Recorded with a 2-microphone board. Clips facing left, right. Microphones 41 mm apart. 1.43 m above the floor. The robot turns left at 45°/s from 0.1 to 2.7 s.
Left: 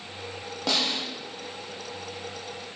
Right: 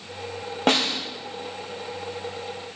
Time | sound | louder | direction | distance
0.7 | a snare drum | right 5 dB | 50° right (ahead or behind) | 1.1 m